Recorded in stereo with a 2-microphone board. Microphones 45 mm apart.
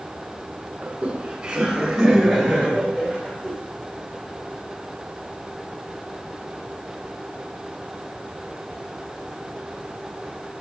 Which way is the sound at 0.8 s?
20° right (ahead or behind).